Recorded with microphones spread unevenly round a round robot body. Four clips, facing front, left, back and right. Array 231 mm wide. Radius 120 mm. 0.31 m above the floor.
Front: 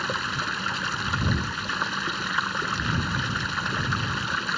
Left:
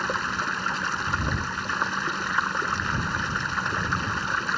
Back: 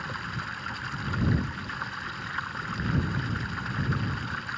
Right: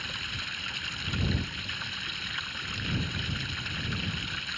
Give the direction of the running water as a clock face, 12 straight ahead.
10 o'clock.